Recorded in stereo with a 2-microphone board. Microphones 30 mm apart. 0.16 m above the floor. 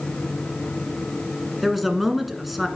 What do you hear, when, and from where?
1.6 s a man speaking: centre (ahead or behind), 1.4 m